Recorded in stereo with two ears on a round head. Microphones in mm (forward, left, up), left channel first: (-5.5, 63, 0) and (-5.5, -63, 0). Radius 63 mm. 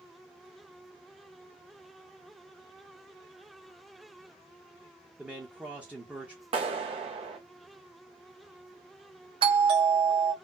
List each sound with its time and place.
5.2 s a man speaking: 10° right (ahead or behind), 0.7 m
6.5 s a clap: 45° right (ahead or behind), 1.1 m
9.4 s a doorbell: 40° right (ahead or behind), 1.6 m